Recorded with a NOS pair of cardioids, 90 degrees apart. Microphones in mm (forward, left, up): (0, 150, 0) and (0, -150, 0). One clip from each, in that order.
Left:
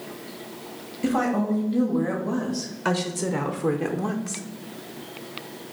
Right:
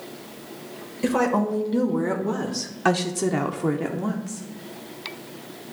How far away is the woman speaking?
About 1.9 m.